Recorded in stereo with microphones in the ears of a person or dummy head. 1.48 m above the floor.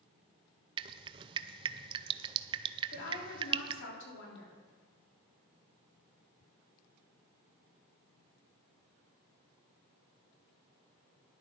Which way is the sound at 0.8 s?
25° right (ahead or behind).